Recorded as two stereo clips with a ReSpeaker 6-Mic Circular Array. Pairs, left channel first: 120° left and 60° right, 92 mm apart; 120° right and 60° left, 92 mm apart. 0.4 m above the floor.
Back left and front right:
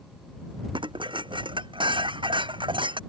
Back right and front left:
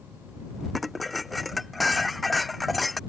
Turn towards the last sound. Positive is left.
turn(degrees=-30)